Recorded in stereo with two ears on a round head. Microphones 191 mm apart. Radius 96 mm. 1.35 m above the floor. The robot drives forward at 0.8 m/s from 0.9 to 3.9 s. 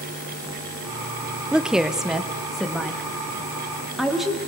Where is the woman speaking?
5° right (ahead or behind), 0.7 m; by 4.4 s centre (ahead or behind), 2.5 m.